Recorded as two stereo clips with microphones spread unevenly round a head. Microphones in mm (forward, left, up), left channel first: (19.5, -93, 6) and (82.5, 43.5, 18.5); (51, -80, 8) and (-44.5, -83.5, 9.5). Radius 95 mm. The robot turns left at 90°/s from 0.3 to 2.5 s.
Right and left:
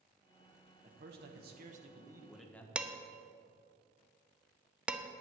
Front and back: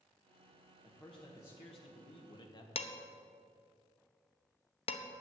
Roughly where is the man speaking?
Left.